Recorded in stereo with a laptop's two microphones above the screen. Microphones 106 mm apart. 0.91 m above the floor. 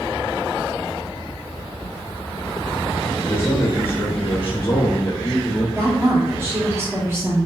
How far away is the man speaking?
About 0.7 m.